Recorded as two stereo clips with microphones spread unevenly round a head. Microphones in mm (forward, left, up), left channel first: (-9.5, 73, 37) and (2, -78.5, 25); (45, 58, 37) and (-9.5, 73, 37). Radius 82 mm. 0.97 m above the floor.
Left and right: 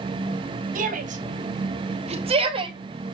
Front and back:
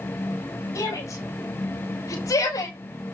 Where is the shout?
55° right, 3 m; by 2.8 s 30° right, 1.9 m.